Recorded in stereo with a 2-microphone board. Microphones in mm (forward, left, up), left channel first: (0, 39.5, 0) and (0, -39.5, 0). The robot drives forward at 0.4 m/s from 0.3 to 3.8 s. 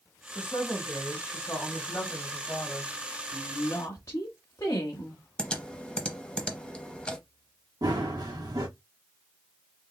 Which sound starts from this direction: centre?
Typing on a keyboard, at 5.4 s.